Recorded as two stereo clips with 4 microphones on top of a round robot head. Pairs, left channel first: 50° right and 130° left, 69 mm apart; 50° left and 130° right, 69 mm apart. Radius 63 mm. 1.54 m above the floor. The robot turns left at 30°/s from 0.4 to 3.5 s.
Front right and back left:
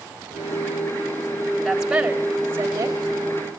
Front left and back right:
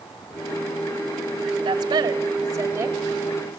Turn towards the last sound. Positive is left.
turn(degrees=165)